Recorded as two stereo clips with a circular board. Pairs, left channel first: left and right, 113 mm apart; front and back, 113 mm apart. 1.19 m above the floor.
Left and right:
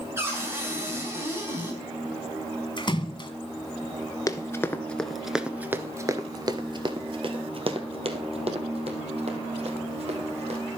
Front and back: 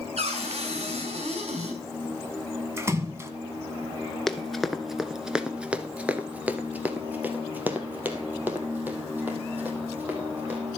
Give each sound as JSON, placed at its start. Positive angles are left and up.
{"t": 0.2, "sound": "a cupboard door", "azimuth_deg": -155, "distance_m": 5.5}
{"t": 2.8, "sound": "a splash", "azimuth_deg": 120, "distance_m": 1.5}
{"t": 4.3, "sound": "running footsteps", "azimuth_deg": 85, "distance_m": 1.2}